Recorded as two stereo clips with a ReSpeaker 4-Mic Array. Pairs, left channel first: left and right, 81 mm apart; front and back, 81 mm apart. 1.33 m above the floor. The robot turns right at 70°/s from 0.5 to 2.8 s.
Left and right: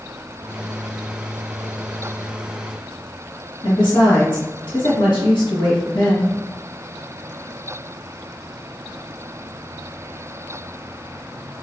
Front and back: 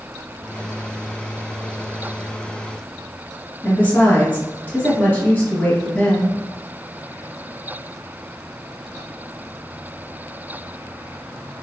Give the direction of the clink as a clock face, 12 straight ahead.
I don't hear a clink.